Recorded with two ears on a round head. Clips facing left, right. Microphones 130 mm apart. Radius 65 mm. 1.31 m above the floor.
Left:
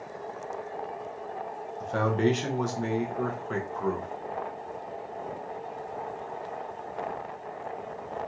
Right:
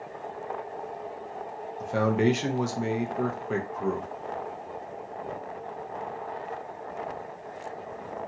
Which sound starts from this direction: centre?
A man speaking, at 1.8 s.